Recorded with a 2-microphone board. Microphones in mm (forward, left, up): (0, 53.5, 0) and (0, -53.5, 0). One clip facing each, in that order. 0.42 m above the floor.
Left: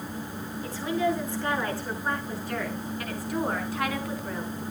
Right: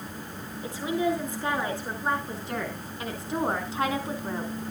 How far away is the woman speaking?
About 6 m.